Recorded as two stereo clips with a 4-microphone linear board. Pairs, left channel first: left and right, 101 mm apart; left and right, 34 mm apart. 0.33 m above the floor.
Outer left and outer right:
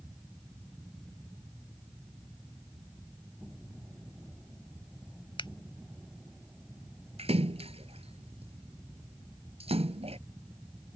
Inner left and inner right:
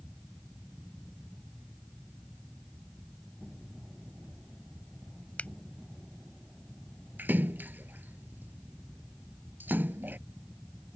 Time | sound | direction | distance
5.4 | a finger snap | 50° left (ahead or behind) | ?
7.2 | a splash | 80° right | ?